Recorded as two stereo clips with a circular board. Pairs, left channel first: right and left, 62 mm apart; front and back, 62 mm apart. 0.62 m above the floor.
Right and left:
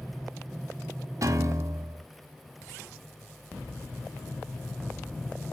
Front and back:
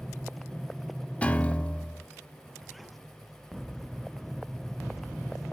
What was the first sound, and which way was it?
A piano, 65° left.